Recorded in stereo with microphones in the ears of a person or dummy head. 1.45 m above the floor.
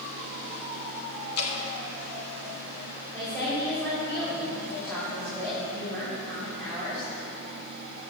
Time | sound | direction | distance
1.4 | dripping | 60° left (ahead or behind) | 3 m
3.1 | a woman speaking | 10° left (ahead or behind) | 5.5 m